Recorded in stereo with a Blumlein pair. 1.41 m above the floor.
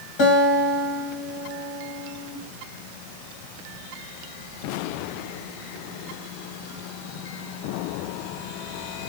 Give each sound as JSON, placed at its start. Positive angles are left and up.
{"t": 0.2, "sound": "a guitar", "azimuth_deg": 40, "distance_m": 1.1}